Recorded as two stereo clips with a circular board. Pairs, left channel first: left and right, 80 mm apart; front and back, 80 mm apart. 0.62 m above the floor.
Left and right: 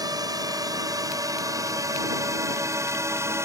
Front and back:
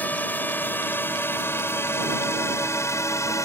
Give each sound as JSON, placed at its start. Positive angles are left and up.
{"t": 0.0, "sound": "a drone", "azimuth_deg": -65}